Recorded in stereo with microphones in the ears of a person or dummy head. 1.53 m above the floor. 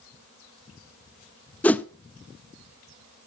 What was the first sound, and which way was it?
A whoosh, 5° left (ahead or behind).